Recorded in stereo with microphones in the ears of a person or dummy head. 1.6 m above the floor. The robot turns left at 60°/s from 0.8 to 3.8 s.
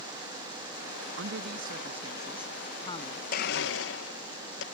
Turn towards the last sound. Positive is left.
turn(degrees=75)  # may be behind; listen again after turning